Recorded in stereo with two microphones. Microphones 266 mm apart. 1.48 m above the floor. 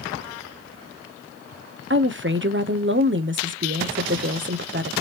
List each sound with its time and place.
1.9 s a woman speaking: 45° right (ahead or behind), 0.7 m